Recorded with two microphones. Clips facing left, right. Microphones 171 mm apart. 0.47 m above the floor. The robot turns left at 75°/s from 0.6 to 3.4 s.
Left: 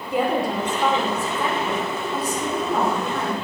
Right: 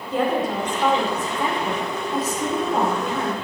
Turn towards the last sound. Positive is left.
turn(degrees=165)